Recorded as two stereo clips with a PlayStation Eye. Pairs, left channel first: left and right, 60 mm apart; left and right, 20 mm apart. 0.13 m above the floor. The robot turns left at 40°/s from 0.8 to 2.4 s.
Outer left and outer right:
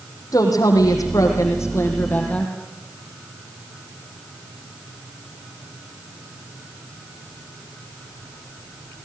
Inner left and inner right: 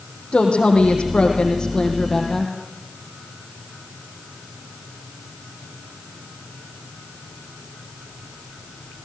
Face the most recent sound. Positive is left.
turn(degrees=20)